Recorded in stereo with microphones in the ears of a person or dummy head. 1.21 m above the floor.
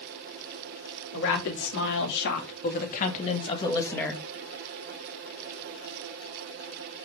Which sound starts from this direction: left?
A woman speaking, at 1.1 s.